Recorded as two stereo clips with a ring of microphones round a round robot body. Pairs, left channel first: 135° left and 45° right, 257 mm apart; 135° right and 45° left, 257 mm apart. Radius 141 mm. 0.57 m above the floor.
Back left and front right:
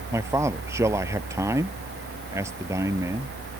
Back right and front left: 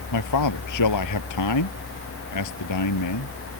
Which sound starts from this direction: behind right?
A man speaking, at 0.1 s.